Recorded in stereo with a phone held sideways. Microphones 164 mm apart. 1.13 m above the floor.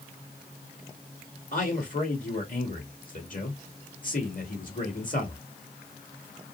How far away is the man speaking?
About 2 m.